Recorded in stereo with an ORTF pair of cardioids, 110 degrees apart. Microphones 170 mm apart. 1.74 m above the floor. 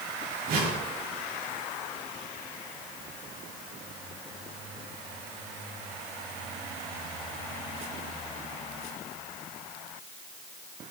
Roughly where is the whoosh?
Ahead right.